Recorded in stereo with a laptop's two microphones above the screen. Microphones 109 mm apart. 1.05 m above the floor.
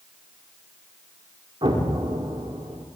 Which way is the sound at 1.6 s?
50° right (ahead or behind).